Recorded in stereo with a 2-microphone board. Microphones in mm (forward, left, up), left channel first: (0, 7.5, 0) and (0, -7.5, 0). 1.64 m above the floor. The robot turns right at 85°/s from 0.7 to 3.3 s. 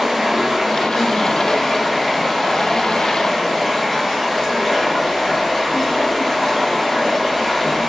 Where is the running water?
95° right, 1.1 m; by 7.9 s 125° left, 1.1 m.